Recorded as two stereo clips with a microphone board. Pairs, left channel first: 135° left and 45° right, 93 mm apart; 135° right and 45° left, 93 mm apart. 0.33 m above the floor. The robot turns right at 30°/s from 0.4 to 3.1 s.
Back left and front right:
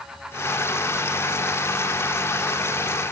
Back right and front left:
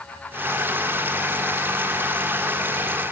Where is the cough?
I don't hear a cough.